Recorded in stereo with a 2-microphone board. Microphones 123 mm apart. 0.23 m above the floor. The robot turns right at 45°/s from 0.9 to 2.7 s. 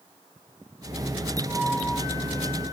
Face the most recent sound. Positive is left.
turn(degrees=65)